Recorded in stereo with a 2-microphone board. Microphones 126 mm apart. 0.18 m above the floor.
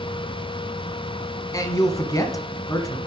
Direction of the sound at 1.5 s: 30° left (ahead or behind).